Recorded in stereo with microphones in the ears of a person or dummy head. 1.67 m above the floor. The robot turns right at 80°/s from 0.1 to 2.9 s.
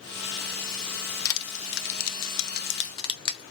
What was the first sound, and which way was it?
Crushing, 20° left (ahead or behind).